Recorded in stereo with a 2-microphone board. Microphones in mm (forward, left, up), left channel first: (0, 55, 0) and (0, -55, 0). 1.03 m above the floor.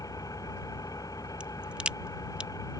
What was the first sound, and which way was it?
An engine running, 30° left (ahead or behind).